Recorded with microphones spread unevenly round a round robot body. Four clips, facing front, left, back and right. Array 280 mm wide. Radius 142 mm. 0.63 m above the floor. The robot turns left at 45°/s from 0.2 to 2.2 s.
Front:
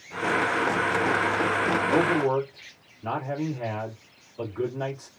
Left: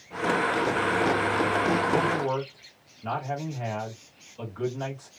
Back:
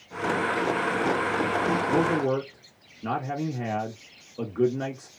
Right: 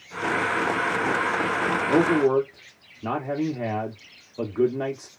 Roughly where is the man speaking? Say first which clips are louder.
Right 6 dB, front 2 dB; right.